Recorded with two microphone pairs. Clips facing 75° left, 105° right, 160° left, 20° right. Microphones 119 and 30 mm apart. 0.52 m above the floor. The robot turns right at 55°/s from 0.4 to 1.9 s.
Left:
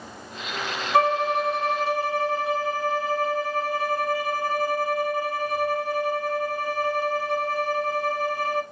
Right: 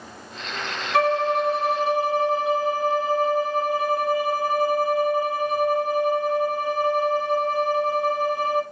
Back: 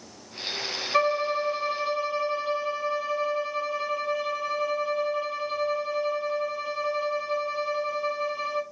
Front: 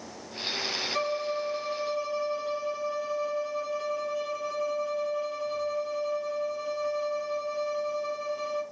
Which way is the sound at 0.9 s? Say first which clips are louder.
Right 1 dB, back 9 dB; 135° left.